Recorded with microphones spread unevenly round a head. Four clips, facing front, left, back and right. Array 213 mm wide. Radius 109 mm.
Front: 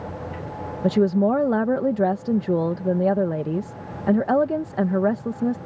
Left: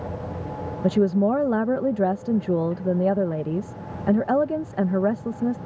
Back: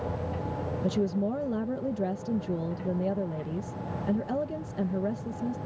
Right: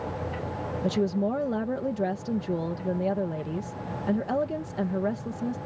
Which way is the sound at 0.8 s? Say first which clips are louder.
Left 7 dB, front 10 dB; 30° left.